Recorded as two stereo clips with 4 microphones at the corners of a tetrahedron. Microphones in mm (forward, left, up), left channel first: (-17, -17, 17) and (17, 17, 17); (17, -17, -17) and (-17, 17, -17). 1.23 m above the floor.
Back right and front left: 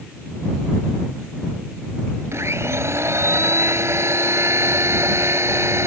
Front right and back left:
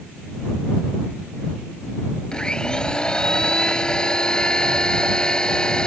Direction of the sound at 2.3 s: 25° left.